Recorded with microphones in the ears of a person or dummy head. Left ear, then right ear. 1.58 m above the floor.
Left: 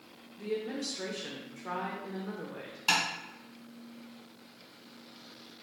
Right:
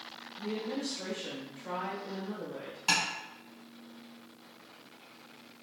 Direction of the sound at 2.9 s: 5° left (ahead or behind).